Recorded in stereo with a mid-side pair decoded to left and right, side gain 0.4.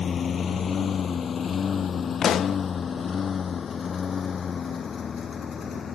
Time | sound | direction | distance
0.0 | a lawn mower | 50° left | ?
2.2 | a pop | 60° left | ?